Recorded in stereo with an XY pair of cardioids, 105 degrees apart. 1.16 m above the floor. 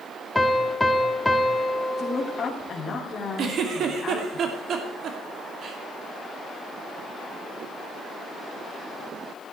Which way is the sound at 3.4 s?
60° right.